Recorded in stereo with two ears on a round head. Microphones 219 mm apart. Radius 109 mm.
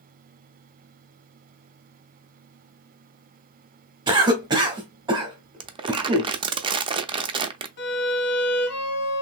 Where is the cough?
20° right (ahead or behind), 1.1 m.